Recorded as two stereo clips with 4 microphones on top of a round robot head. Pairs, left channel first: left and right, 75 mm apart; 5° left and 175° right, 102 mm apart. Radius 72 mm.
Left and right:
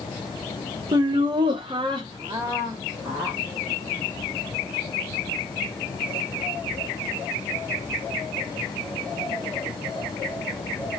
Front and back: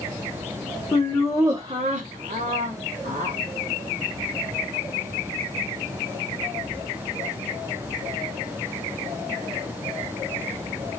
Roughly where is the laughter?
Ahead right.